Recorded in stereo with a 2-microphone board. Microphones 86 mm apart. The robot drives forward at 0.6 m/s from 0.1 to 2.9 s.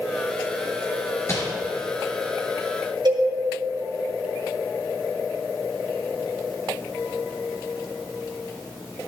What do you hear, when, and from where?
1.3 s crumpling: 30° left (ahead or behind), 3.5 m
3.0 s a cowbell: 55° right (ahead or behind), 2 m